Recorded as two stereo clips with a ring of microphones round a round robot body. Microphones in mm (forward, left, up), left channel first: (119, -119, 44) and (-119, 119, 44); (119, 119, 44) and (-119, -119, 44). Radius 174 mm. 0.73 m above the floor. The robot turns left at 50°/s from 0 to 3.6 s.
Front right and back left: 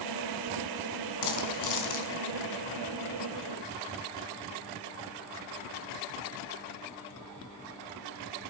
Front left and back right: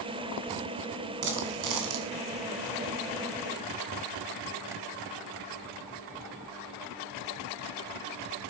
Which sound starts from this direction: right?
A dropped coin, at 1.2 s.